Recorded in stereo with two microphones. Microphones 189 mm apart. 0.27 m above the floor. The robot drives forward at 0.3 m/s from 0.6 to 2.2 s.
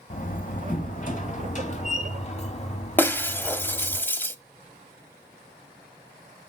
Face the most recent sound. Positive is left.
turn(degrees=10)  # may be behind; listen again after turning